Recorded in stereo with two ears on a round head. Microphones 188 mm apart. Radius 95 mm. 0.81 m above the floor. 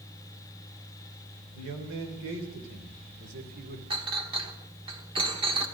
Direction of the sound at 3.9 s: 25° right (ahead or behind).